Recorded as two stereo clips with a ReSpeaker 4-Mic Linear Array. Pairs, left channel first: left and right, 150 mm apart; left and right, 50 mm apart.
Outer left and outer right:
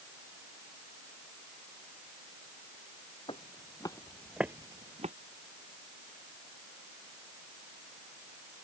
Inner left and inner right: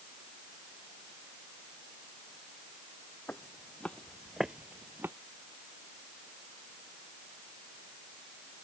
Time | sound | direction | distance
3.3 | footsteps | 35° left (ahead or behind) | ?